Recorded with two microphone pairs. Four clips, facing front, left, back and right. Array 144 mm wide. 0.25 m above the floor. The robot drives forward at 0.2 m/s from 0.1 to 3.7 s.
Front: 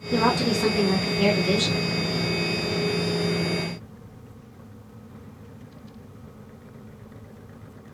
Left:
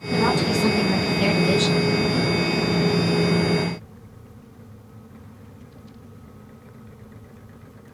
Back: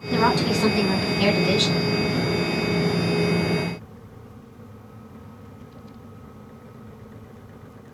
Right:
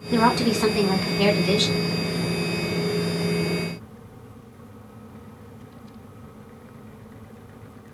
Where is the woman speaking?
125° right, 3 m; by 1.9 s 130° right, 3 m.